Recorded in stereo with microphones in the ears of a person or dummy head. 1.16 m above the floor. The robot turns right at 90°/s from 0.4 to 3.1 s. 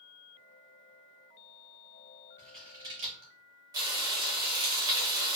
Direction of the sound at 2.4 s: 20° left (ahead or behind).